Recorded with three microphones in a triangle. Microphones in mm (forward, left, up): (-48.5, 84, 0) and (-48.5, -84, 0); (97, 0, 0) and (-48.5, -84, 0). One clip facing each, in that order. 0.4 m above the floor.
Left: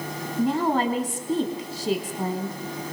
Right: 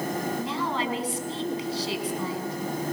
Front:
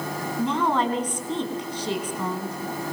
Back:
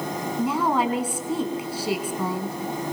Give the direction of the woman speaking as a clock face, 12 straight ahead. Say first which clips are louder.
Left 6 dB, even; 8 o'clock.